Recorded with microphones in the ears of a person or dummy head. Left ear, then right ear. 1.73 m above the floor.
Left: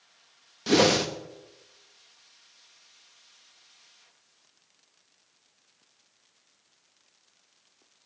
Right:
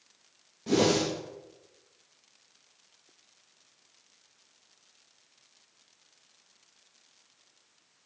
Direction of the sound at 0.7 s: 45° left (ahead or behind).